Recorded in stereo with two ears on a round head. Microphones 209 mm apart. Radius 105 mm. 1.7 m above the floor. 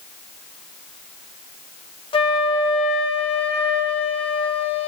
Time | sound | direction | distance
2.1 | a flute | 25° left (ahead or behind) | 0.8 m